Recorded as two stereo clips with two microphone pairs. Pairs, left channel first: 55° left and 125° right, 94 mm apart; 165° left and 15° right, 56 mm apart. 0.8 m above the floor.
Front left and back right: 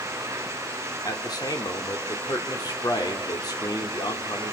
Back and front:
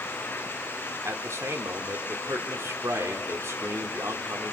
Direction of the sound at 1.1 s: 10° left.